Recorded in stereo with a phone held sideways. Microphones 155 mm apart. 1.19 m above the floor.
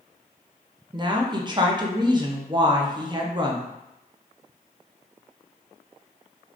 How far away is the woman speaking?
About 0.5 m.